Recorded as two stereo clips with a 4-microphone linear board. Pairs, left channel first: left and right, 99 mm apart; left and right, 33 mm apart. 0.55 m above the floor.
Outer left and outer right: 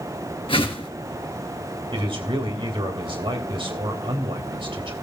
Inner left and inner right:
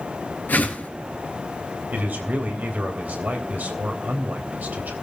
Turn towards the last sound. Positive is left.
turn(degrees=-65)  # may be behind; listen again after turning